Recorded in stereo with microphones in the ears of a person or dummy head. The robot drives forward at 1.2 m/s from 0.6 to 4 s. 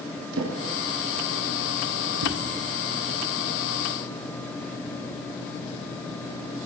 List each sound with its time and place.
0.3 s a drawer: 75° right (ahead or behind), 8.5 m; by 2.4 s 85° right, 8.5 m